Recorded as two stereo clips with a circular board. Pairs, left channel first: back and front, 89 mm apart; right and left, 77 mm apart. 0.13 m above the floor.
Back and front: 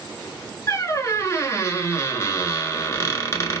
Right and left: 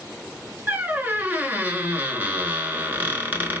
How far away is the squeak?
About 0.7 m.